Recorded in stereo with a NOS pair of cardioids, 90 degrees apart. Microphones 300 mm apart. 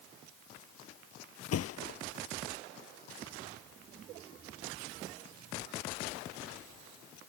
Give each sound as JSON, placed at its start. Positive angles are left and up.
{"t": 1.5, "sound": "a thud", "azimuth_deg": 55}